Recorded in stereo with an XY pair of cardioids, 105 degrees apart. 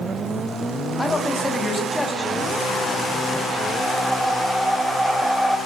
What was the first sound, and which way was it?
A man speaking, 15° left.